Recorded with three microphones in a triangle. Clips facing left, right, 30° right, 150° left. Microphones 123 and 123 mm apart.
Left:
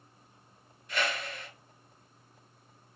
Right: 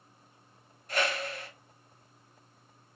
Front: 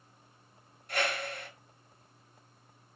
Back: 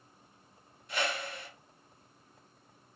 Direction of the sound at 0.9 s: 55° right.